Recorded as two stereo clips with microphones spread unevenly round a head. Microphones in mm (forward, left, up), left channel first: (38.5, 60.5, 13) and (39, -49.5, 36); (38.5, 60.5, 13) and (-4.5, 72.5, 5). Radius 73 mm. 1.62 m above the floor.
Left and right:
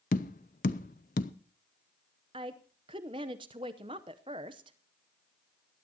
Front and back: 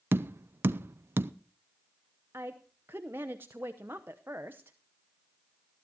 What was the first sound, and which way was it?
Tapping, 130° left.